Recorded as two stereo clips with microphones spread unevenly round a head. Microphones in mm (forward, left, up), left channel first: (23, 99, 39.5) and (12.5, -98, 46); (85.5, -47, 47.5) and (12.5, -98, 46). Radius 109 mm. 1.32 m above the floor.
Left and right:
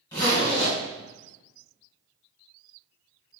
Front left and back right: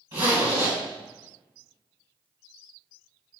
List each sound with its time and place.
0.1 s a zipper: 165° left, 1.5 m